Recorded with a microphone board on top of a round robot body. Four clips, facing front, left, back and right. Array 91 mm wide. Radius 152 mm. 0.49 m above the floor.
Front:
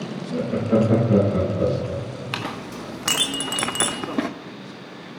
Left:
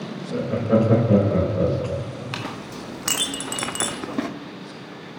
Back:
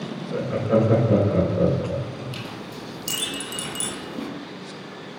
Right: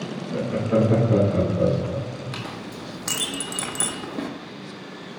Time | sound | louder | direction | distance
0.3 | laughter | left 2 dB, front 1 dB | 135° left | 3 m
2.3 | a clink | left 2 dB, front 4 dB | 20° left | 0.6 m